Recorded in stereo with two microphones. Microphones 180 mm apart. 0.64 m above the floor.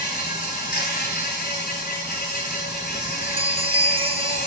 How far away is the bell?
About 0.6 m.